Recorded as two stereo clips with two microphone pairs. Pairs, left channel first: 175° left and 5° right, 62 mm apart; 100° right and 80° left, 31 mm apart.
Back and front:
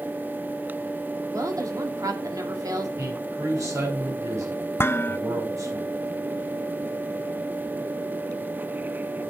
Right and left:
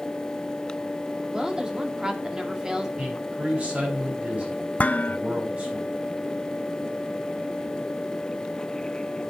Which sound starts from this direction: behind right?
Dishes clattering, at 4.8 s.